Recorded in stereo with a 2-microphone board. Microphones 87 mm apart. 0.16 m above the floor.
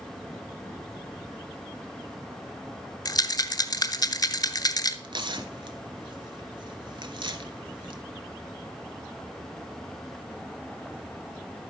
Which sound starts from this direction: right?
Tearing paper, at 5.0 s.